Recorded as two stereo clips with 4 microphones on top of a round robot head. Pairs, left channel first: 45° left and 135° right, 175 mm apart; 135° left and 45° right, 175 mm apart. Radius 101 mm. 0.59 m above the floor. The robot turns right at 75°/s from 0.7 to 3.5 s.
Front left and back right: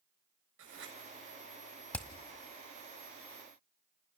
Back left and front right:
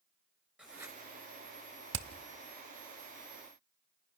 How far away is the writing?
About 6 m.